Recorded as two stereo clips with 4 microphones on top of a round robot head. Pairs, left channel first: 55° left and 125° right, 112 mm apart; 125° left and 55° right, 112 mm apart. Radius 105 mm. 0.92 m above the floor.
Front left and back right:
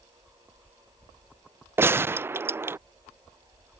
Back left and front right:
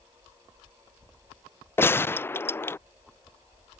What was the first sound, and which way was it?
A gunshot, straight behind.